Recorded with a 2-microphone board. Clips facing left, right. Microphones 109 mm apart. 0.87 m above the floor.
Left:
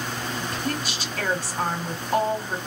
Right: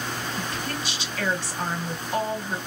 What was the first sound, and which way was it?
A woman speaking, 45° left (ahead or behind).